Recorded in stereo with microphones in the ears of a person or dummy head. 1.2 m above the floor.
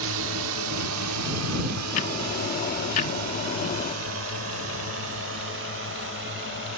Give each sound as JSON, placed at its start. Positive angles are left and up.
{"t": 0.0, "sound": "a drone", "side_deg": -75}
{"t": 1.9, "sound": "ticking", "side_deg": 50}